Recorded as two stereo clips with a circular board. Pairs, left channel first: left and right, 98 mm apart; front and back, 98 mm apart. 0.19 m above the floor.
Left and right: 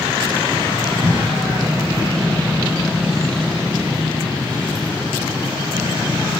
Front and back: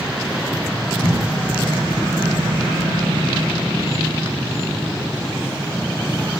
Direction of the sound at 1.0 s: 105° right.